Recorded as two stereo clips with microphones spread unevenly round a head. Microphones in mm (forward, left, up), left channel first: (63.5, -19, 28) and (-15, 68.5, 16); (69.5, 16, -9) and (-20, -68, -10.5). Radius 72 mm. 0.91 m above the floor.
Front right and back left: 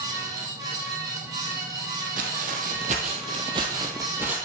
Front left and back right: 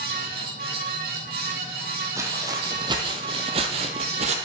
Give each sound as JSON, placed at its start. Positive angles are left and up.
{"t": 0.0, "sound": "a fan", "azimuth_deg": -160, "distance_m": 2.5}
{"t": 2.2, "sound": "footsteps", "azimuth_deg": 155, "distance_m": 1.6}